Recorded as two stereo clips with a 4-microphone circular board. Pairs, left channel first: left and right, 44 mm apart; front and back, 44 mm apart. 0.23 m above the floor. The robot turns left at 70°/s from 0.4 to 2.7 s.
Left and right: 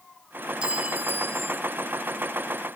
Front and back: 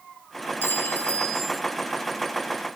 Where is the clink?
20° right, 2.5 m; by 1.6 s 95° right, 2.5 m.